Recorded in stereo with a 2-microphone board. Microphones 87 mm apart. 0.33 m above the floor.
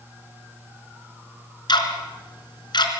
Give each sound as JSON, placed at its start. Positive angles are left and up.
{"t": 1.7, "sound": "ticking", "side_deg": 70, "distance_m": 3.5}